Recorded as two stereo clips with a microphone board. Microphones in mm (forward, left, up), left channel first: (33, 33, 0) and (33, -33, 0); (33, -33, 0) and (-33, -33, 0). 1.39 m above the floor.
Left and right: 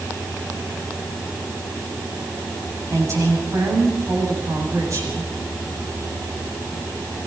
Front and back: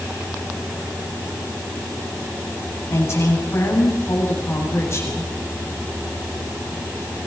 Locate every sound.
2.9 s a woman speaking: 50° right, 8.5 m